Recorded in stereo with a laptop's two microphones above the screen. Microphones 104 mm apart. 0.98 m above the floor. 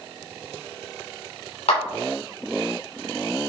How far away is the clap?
About 2.5 m.